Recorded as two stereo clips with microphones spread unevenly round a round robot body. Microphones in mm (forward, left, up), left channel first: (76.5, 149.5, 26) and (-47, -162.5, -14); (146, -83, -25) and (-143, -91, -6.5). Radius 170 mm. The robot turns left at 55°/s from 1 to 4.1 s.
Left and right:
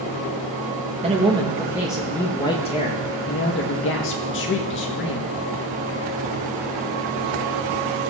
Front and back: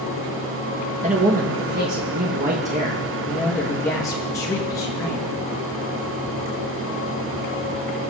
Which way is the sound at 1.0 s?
135° right.